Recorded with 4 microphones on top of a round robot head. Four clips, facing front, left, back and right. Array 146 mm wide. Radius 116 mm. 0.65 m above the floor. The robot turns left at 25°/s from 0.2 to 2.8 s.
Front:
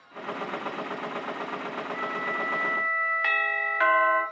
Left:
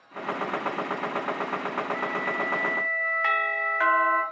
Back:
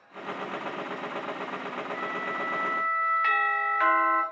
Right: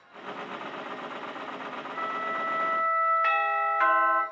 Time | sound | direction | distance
1.9 | a flute | 130° left | 0.8 m
3.2 | a doorbell | 35° left | 1.0 m